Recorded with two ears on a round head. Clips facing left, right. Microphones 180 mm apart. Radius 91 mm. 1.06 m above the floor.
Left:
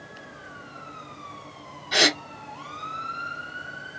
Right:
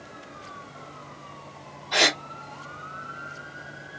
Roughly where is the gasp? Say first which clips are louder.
Left 1 dB; left.